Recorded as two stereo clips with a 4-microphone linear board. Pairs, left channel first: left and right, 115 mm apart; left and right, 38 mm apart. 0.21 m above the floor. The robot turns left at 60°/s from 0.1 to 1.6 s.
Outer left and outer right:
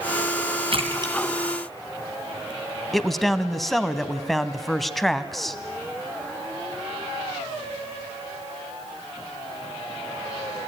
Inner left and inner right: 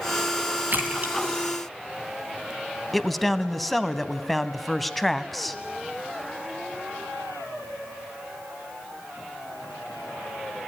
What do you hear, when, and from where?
0.7 s a splash: 55° right (ahead or behind), 3 m; by 2.5 s 10° right (ahead or behind), 3 m
2.9 s a man speaking: centre (ahead or behind), 1.3 m